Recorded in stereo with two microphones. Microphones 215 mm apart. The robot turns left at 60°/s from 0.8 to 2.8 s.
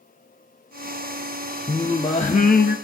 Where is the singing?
170° left, 1.5 m; by 2.8 s 105° left, 1.5 m.